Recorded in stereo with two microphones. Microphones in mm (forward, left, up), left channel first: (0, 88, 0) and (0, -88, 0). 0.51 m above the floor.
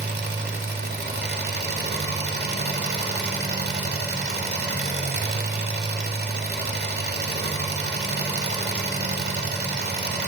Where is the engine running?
75° right (ahead or behind), 0.9 m.